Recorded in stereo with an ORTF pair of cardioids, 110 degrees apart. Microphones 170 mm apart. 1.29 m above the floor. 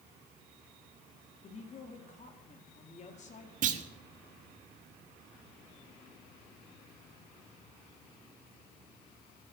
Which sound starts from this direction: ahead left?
A woman speaking, at 1.4 s.